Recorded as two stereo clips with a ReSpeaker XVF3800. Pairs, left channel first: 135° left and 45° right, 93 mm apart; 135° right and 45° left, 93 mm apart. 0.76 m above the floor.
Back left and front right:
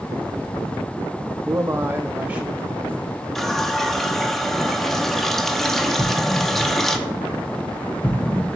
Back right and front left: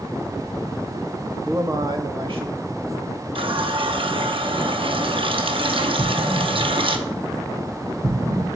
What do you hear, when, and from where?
1.4 s a man speaking: 25° right, 0.6 m; by 3.2 s 40° left, 2.5 m
3.4 s a running tap: 50° left, 0.7 m
6.0 s an explosion: 60° left, 2 m